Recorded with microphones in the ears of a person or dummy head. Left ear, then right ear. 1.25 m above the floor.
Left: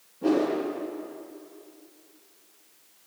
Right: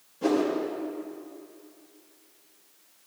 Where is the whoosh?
75° right (ahead or behind), 4.5 m.